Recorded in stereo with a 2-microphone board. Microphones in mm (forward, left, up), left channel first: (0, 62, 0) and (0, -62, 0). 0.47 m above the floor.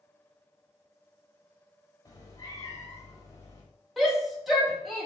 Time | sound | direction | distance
2.0 | a cat meowing | 30° left (ahead or behind) | 1.2 m
4.0 | a shout | centre (ahead or behind) | 1.8 m